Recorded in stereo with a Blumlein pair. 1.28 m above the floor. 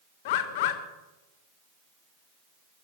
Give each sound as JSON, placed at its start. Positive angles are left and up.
{"t": 0.2, "sound": "a bird", "azimuth_deg": 50, "distance_m": 1.3}